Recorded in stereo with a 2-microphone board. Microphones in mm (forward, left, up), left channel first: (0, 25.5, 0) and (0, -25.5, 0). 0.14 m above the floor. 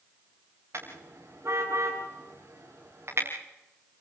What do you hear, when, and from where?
0.7 s a car horn: 50° right (ahead or behind), 7 m